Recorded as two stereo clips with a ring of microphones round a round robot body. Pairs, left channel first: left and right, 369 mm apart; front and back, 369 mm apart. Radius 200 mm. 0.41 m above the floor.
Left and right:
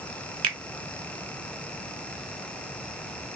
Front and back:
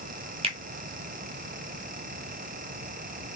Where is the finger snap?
115° right, 0.6 m.